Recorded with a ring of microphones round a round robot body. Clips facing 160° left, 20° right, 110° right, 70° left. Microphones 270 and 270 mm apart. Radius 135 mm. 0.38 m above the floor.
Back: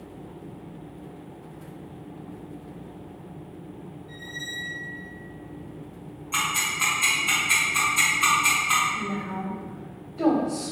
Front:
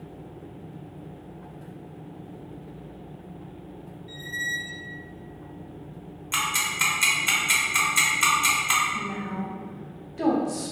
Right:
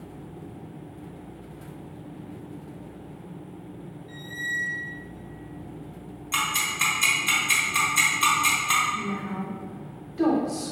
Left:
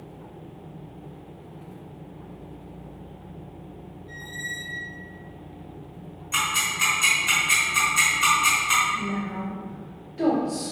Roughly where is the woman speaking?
Ahead right.